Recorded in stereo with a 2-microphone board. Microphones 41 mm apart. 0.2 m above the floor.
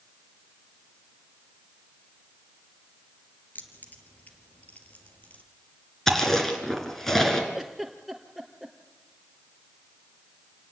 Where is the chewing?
10° left (ahead or behind), 3.5 m.